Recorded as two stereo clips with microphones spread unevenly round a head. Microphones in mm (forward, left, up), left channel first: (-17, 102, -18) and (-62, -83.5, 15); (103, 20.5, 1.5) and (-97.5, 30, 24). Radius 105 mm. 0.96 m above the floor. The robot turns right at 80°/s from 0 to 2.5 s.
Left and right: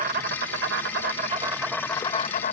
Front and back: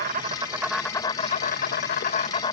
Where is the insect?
150° right; by 2.5 s 50° left.